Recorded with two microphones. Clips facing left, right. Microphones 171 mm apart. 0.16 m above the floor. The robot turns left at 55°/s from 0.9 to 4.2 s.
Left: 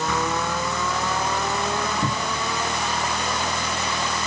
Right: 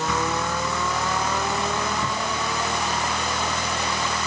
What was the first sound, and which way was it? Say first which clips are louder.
A cupboard door: left 1 dB; 45° left (ahead or behind).